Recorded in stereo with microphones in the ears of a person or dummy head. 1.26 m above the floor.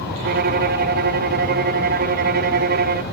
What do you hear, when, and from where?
0.2 s a violin: 40° right (ahead or behind), 1.0 m